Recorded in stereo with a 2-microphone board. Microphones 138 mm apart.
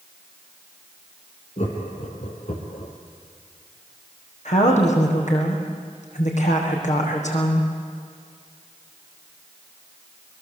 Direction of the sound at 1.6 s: 55° left (ahead or behind).